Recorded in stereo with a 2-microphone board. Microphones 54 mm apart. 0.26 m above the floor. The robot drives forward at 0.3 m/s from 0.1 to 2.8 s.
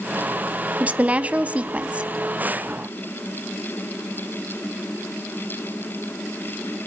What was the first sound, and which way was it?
A woman speaking, 30° right (ahead or behind).